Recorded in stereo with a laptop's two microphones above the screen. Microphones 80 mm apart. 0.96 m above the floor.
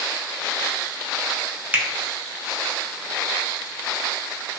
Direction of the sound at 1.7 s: 20° right (ahead or behind).